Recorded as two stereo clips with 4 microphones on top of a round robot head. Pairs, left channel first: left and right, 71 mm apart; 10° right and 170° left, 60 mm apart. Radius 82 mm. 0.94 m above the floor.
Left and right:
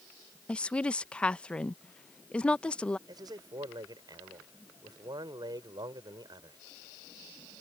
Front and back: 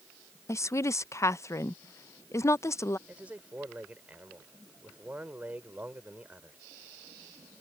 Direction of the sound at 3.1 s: 115° right.